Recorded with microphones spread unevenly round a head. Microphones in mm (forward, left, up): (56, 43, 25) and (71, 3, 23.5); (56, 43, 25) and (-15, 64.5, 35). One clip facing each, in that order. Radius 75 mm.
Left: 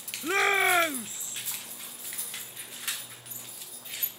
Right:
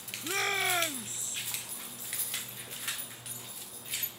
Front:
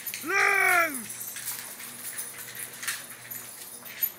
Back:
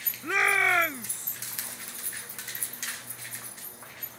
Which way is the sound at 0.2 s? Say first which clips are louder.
Left 7 dB, front 1 dB; 60° left.